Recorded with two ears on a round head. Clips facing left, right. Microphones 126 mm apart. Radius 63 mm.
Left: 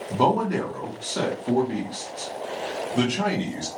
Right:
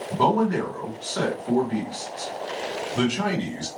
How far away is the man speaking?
About 1.1 m.